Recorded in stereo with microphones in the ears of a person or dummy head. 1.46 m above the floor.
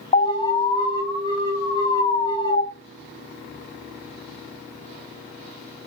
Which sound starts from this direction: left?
An alarm, at 0.1 s.